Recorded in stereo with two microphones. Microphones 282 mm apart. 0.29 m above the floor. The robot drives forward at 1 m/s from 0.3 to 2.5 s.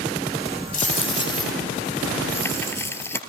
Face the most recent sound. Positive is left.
turn(degrees=10)  # may be behind; listen again after turning